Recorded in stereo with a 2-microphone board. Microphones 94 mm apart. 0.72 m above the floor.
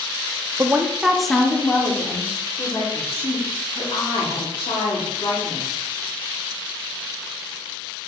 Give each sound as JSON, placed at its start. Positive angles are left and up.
{"t": 0.6, "sound": "a woman speaking", "side_deg": -30, "distance_m": 0.8}
{"t": 2.9, "sound": "a woman speaking", "side_deg": 75, "distance_m": 4.0}